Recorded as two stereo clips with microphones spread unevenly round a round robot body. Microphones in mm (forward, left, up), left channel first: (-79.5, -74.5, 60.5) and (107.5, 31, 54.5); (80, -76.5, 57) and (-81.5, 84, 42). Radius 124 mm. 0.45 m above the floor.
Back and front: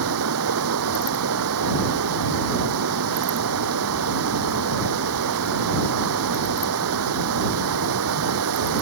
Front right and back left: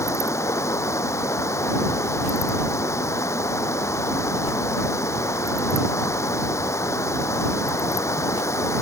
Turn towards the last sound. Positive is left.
turn(degrees=35)